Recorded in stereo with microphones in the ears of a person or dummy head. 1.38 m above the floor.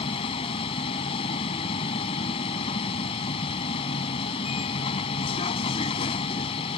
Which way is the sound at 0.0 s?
35° left (ahead or behind).